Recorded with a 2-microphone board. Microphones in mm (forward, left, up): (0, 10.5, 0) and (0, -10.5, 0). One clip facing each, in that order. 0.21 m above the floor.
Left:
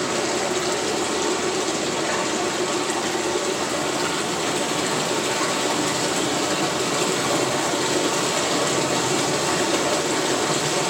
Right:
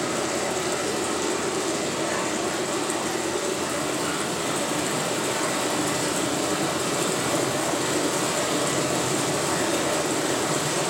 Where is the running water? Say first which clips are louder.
Left 3 dB; 30° left (ahead or behind), 3 m.